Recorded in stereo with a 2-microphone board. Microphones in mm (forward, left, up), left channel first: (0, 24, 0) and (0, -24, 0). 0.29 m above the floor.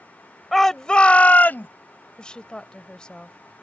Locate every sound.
0.5 s a shout: centre (ahead or behind); by 1.7 s 45° left (ahead or behind)
2.2 s a woman speaking: 20° left (ahead or behind)